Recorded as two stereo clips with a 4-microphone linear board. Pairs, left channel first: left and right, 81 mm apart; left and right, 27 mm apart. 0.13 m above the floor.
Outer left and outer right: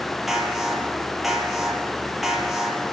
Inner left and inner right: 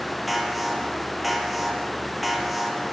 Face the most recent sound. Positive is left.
turn(degrees=-5)  # may be behind; listen again after turning